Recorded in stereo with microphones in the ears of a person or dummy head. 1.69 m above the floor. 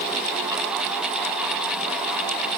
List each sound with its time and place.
Only background noise.